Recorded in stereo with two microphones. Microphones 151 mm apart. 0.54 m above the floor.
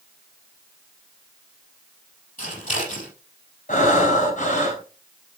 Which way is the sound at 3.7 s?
55° left (ahead or behind).